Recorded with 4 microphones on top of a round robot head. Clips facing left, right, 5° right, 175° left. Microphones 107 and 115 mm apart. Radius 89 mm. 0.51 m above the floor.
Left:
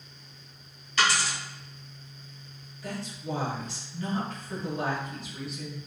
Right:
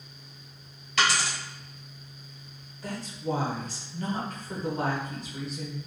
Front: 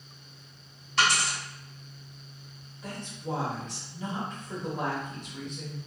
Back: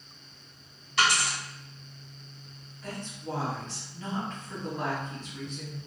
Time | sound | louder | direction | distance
1.0 | a dropped coin | even, even | 95° right | 1.3 m
2.8 | a woman speaking | right 3 dB, front 1 dB | 75° right | 1.0 m